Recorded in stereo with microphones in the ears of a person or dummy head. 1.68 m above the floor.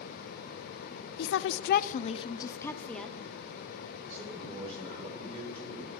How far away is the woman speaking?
About 0.6 m.